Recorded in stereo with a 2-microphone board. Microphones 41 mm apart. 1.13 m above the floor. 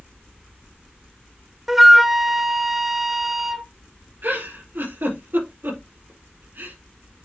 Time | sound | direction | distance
1.7 | a flute | 5° right (ahead or behind) | 0.6 m
4.2 | a giggle | 60° right (ahead or behind) | 5 m